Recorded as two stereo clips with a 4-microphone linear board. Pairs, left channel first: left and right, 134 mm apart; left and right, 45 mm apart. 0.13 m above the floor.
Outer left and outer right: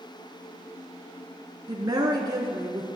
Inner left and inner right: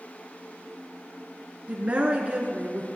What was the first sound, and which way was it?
A woman speaking, 30° right (ahead or behind).